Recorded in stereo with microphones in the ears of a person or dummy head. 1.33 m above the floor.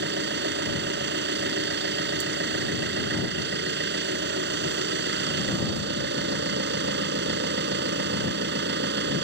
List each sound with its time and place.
0.0 s an engine running: 65° right (ahead or behind)